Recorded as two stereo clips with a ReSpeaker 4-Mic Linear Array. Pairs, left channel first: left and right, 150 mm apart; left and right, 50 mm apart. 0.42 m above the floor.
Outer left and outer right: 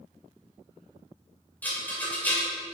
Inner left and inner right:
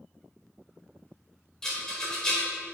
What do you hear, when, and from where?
1.6 s a rattle: 10° left (ahead or behind), 1.9 m